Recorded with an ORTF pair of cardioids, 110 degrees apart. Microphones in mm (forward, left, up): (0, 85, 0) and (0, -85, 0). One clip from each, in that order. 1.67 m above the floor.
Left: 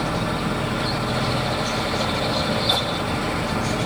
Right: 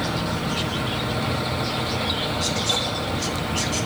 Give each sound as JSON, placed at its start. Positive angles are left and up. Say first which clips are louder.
{"t": 0.0, "sound": "a fan", "louder": "left 2 dB", "azimuth_deg": 55, "distance_m": 2.0}